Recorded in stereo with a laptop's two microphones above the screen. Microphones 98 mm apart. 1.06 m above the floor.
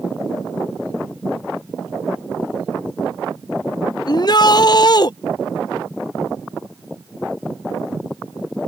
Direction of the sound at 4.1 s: 45° left (ahead or behind).